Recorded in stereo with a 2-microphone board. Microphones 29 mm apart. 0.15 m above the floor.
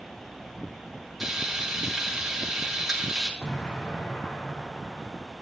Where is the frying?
5° right (ahead or behind), 4 m.